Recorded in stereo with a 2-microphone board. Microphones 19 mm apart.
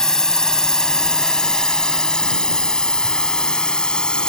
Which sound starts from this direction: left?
A drone, at 0.0 s.